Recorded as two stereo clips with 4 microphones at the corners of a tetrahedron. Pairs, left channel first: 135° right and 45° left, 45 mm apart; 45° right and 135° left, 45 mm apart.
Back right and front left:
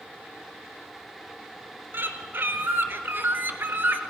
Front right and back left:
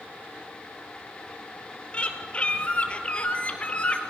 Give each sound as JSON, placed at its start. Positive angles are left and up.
{"t": 1.9, "sound": "a bird", "azimuth_deg": 20, "distance_m": 1.4}